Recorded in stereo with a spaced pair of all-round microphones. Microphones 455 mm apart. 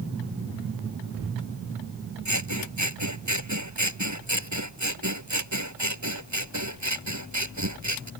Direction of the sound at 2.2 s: 35° right (ahead or behind).